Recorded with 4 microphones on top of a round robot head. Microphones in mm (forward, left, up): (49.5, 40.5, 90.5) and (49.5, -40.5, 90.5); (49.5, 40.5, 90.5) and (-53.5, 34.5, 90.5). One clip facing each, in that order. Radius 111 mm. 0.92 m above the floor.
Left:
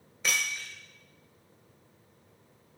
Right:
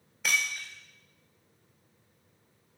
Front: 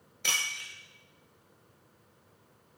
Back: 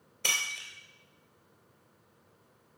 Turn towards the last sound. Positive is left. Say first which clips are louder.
# right 1 dB, even
turn(degrees=180)